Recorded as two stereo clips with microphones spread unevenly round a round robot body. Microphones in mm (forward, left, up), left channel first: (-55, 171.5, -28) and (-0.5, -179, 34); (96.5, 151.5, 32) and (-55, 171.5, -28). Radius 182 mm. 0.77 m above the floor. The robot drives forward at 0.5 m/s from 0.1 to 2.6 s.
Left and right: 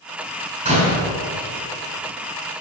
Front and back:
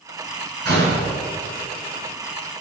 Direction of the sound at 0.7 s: 155° right.